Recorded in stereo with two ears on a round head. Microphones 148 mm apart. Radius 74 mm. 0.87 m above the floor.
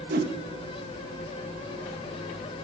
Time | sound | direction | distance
0.1 | a whoosh | 60° right (ahead or behind) | 0.8 m